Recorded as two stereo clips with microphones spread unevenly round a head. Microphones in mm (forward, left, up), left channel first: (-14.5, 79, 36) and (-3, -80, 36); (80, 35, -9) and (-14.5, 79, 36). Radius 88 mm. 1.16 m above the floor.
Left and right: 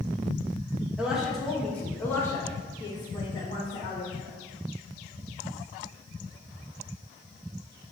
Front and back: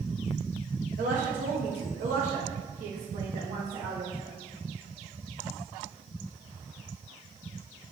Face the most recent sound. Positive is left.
turn(degrees=145)